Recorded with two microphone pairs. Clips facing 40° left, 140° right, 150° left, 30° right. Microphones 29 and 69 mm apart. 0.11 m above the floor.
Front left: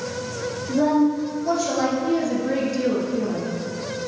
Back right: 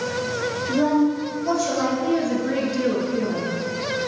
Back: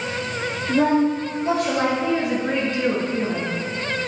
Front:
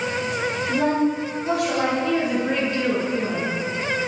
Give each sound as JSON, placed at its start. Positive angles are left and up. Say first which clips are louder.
{"t": 0.7, "sound": "a woman speaking", "louder": "front left 1 dB, back 4 dB", "azimuth_deg": 120, "distance_m": 1.7}
{"t": 2.0, "sound": "a woman speaking", "louder": "even, even", "azimuth_deg": -170, "distance_m": 1.6}